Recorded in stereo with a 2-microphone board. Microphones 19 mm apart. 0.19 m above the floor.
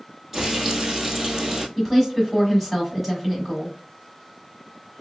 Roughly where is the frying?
Centre.